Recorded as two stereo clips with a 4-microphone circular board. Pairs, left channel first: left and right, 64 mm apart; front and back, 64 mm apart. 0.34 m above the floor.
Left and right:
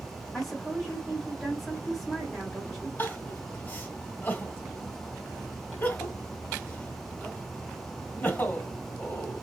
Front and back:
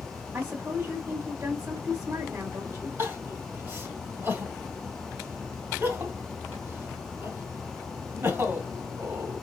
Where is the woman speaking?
175° left, 1.5 m.